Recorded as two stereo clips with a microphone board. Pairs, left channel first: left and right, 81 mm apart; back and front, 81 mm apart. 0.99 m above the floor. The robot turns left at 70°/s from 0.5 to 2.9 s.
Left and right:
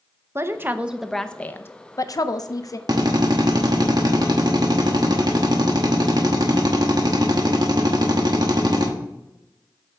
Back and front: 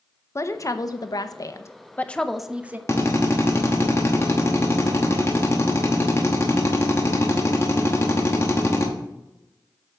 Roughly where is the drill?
Behind right.